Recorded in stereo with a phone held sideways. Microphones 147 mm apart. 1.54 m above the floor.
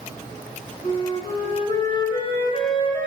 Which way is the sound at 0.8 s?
40° left (ahead or behind).